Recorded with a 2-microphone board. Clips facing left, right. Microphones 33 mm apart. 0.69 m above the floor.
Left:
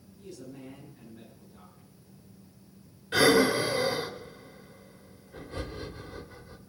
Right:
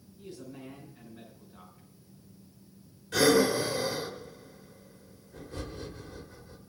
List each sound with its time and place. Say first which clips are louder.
0.2 s a man speaking: even; 40° right (ahead or behind), 8.5 m
3.1 s breathing: left 2 dB; 40° left (ahead or behind), 1.5 m